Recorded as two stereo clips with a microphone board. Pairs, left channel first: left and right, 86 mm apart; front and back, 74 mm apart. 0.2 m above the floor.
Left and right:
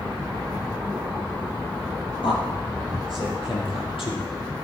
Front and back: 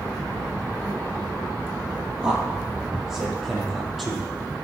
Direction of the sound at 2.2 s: 100° left.